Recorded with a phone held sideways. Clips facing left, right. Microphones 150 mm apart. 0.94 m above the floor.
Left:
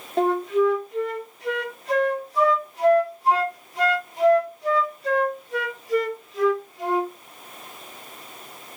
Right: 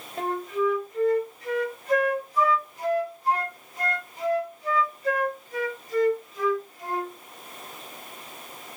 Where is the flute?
80° left, 1.0 m.